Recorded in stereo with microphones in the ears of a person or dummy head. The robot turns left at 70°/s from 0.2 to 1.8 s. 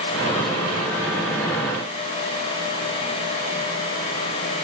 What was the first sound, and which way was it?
Only background noise.